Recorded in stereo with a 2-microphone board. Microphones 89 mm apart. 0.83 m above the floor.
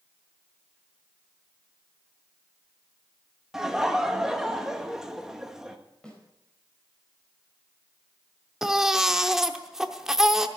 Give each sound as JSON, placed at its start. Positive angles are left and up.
{"t": 3.5, "sound": "laughter", "side_deg": -5, "distance_m": 1.1}
{"t": 6.0, "sound": "a snare drum", "side_deg": 10, "distance_m": 4.5}
{"t": 8.6, "sound": "a baby crying", "side_deg": -5, "distance_m": 0.7}